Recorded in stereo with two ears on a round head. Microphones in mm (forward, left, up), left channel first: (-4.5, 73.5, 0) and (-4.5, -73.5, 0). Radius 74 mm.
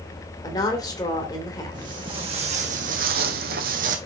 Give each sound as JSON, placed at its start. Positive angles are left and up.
{"t": 0.4, "sound": "a woman speaking", "side_deg": 20, "distance_m": 2.5}
{"t": 1.7, "sound": "footsteps", "side_deg": -25, "distance_m": 2.5}